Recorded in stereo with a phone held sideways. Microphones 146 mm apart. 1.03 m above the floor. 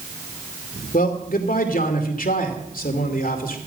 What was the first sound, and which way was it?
A man speaking, 75° left (ahead or behind).